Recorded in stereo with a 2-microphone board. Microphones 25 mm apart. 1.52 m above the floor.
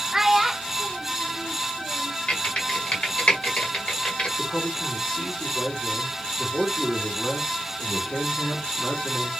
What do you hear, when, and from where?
0.1 s a child speaking: 10° right (ahead or behind), 0.7 m; by 2.2 s 10° left (ahead or behind), 0.8 m
2.3 s typing on a keyboard: 50° left (ahead or behind), 1.8 m
4.4 s a man speaking: 60° left (ahead or behind), 2 m